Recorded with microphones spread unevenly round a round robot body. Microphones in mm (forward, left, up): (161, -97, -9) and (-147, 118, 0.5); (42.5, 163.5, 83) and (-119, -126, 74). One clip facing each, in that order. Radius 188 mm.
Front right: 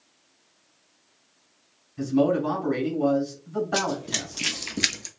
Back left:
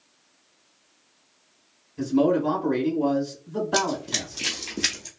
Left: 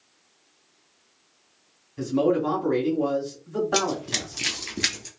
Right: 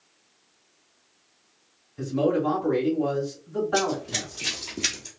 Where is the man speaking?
35° left, 2.5 m.